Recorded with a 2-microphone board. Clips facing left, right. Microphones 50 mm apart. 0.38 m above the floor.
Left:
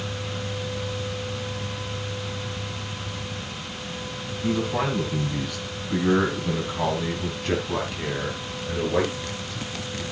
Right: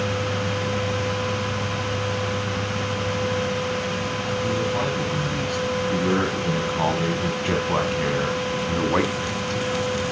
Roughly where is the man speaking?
Centre.